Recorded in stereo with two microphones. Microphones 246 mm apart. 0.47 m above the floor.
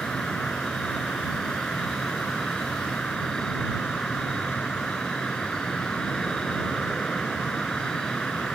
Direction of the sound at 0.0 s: 5° left (ahead or behind).